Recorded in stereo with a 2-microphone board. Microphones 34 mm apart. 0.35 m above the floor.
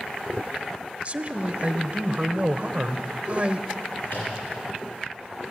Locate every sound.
1.1 s a man speaking: 40° right (ahead or behind), 1.2 m
4.0 s a microwave: 80° left, 9.5 m